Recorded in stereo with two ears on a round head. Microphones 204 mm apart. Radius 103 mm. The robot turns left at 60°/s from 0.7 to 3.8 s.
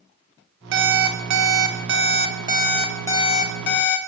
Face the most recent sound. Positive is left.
turn(degrees=125)